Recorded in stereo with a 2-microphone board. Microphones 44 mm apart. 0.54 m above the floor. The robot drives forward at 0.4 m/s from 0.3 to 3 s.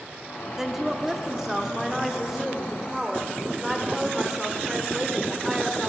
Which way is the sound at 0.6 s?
10° right (ahead or behind).